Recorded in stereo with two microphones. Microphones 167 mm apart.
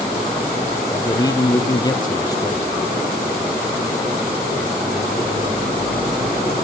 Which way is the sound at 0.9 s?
25° left (ahead or behind).